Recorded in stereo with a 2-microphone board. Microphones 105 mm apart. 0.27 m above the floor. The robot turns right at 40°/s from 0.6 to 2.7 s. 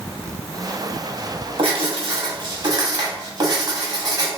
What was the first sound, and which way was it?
Writing, 95° right.